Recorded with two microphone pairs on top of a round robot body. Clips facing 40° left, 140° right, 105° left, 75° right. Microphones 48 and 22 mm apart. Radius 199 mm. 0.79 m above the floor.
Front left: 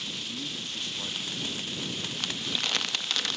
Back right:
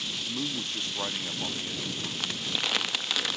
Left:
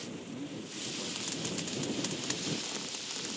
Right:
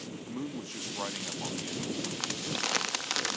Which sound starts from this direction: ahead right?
Crumpling, at 2.2 s.